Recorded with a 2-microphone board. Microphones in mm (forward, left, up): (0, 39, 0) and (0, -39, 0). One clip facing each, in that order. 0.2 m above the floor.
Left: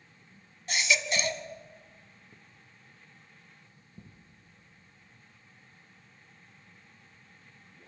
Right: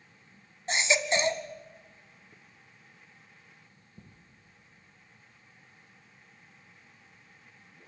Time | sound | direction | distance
0.7 | a baby crying | 30° right (ahead or behind) | 1.3 m